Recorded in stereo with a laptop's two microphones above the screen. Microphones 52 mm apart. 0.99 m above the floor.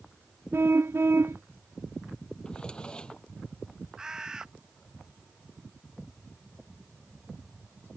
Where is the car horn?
50° right (ahead or behind).